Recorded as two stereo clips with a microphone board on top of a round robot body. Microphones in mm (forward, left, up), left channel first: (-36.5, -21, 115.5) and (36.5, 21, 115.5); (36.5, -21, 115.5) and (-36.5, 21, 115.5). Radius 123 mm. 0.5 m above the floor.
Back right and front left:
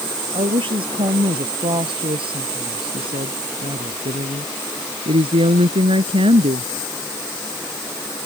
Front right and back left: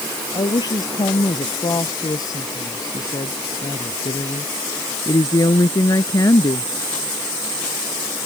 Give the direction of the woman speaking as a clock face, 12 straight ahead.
12 o'clock.